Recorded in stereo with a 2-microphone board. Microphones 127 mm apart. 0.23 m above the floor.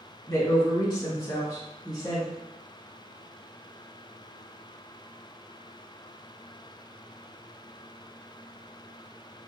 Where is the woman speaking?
20° left (ahead or behind), 1.9 m; by 2.3 s 30° left (ahead or behind), 1.6 m.